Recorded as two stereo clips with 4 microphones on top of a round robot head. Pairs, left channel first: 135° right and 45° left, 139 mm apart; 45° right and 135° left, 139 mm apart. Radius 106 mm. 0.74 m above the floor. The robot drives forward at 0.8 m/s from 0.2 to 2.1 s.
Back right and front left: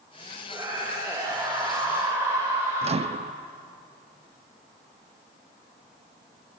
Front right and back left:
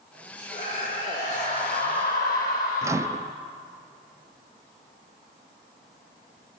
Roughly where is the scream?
Ahead.